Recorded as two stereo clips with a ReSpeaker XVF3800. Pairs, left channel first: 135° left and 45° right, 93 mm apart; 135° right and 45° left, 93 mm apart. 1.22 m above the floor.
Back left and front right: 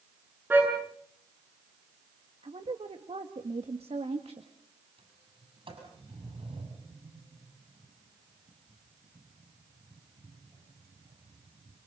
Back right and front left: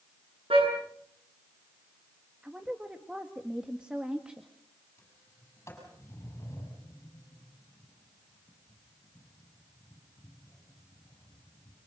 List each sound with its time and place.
0.5 s a car horn: 25° left, 9.5 m
2.4 s a woman speaking: 35° right, 1.8 m
5.0 s a sliding door: 70° right, 7.5 m